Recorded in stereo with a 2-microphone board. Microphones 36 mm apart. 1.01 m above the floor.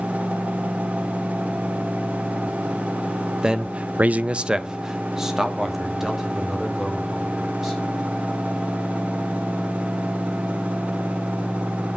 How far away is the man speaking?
About 0.8 m.